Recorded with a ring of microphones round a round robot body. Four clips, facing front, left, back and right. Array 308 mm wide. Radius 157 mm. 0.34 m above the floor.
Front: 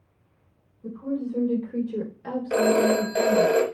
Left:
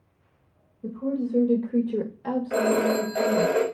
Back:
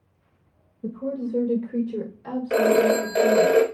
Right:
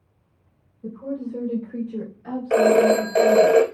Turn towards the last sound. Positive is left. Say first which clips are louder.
# right 8 dB, back 2 dB
turn(degrees=-105)